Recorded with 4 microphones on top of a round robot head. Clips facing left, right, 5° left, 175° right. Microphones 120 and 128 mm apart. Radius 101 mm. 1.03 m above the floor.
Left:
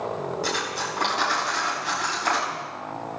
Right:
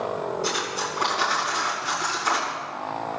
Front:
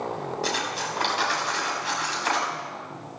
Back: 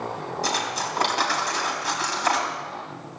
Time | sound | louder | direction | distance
0.4 | cutlery clinking | right 1 dB, back 4 dB | 140° left | 4 m